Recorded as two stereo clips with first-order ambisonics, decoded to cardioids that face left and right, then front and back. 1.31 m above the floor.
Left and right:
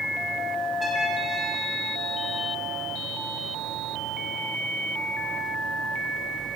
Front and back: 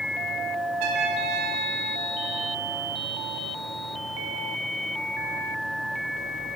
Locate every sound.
0.8 s a trumpet: 175° left, 3.5 m